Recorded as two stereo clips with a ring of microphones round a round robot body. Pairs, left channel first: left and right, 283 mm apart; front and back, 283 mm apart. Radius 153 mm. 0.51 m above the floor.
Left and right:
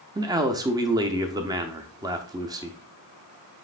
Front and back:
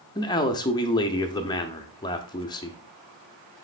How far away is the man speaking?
About 0.6 m.